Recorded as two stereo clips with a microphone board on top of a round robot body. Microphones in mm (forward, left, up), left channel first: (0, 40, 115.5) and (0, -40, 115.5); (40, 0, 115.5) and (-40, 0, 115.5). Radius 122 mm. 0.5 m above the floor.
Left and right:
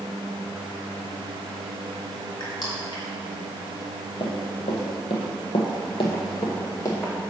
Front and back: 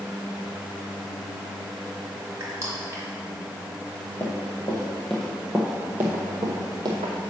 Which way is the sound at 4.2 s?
60° left.